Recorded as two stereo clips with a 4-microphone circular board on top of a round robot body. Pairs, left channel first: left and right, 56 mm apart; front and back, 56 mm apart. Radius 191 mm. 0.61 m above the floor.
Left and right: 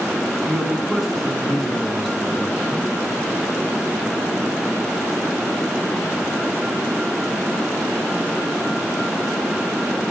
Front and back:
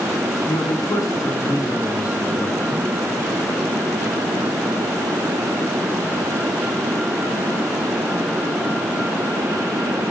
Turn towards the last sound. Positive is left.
turn(degrees=0)